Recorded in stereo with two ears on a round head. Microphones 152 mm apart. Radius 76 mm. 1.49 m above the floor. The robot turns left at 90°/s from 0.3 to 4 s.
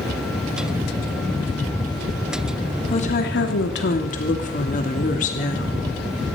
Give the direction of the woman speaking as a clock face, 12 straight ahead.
7 o'clock.